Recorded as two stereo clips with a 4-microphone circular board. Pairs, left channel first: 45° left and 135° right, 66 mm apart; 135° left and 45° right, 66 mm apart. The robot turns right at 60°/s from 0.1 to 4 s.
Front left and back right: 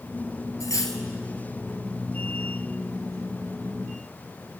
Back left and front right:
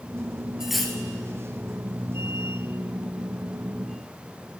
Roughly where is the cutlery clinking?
Ahead left.